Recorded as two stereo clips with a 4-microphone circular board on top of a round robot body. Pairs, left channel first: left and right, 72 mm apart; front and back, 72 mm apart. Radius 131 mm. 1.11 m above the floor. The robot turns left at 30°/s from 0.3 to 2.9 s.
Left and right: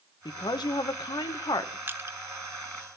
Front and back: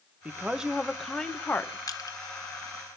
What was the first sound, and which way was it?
A woman speaking, 105° left.